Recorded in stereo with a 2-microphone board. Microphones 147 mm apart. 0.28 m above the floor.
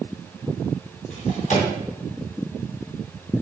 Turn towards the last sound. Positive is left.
turn(degrees=55)  # may be behind; listen again after turning